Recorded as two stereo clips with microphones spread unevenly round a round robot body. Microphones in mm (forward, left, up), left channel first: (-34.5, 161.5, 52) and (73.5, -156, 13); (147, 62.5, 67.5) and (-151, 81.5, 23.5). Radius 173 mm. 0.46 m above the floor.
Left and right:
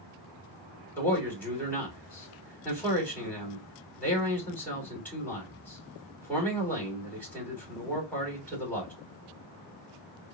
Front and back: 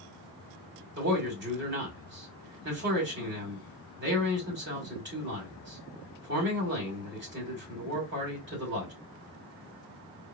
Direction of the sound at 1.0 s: 160° right.